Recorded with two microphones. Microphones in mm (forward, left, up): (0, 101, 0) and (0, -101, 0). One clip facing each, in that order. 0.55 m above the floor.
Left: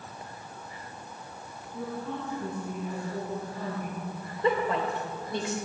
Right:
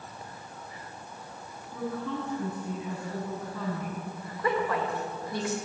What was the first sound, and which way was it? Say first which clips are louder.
A woman speaking: right 2 dB; 75° right (ahead or behind).